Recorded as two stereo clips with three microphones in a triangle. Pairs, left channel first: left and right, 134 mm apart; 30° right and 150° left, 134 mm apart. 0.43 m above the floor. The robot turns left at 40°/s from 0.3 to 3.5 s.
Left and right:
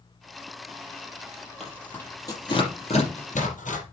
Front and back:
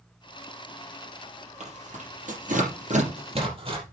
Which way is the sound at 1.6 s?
Straight behind.